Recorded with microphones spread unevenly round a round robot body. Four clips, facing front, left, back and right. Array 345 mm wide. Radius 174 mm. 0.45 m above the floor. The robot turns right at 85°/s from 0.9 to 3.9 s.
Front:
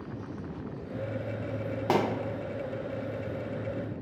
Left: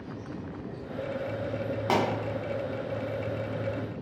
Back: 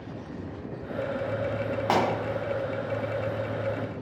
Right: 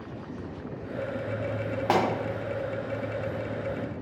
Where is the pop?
10° right, 1.7 m; by 2.0 s straight ahead, 1.7 m.